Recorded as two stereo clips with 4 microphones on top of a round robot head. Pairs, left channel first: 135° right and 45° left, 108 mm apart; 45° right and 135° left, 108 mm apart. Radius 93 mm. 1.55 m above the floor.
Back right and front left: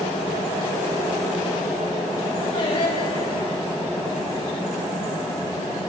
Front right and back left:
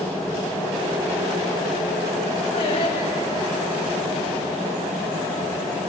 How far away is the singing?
About 8 m.